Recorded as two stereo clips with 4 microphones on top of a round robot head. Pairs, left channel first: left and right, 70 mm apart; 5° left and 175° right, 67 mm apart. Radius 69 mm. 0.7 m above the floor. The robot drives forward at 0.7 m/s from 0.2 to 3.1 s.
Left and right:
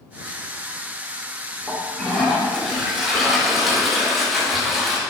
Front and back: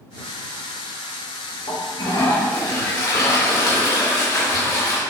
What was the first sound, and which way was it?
A toilet flushing, straight ahead.